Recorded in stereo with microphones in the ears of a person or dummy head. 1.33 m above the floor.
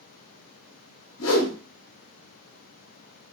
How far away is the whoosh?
About 0.8 m.